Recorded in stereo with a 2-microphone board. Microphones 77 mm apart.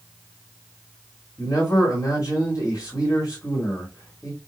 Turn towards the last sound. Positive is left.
turn(degrees=50)  # may be behind; listen again after turning